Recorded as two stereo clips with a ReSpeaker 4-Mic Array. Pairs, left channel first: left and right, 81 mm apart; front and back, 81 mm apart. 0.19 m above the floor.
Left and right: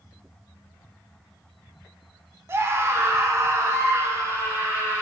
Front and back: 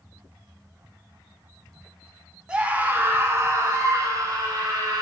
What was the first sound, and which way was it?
A scream, 115° right.